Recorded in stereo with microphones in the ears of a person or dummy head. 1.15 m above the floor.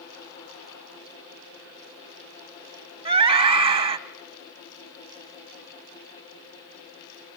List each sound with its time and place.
3.0 s a scream: 30° right (ahead or behind), 1.5 m